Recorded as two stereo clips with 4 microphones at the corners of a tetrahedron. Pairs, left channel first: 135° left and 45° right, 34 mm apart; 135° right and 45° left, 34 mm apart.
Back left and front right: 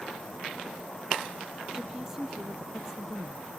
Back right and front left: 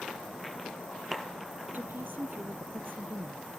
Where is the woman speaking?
35° left.